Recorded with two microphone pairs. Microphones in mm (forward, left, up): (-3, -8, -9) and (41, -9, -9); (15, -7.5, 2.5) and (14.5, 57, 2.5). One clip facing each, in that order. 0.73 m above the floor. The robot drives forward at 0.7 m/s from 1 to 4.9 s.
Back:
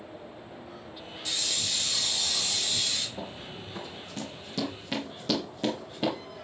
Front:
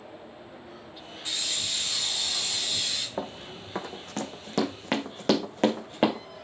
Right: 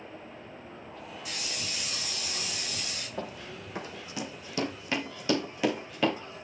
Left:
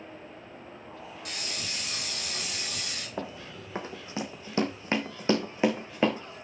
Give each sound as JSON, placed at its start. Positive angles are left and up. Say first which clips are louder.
{"t": 1.2, "sound": "a hiss", "louder": "even, left 1 dB", "azimuth_deg": 60, "distance_m": 4.5}
{"t": 3.2, "sound": "running footsteps", "louder": "front 4 dB, left 1 dB", "azimuth_deg": 30, "distance_m": 2.0}